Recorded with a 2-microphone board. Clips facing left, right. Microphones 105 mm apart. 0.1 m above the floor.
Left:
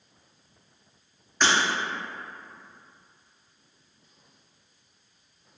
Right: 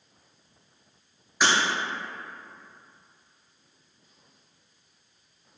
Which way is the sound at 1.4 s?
10° right (ahead or behind).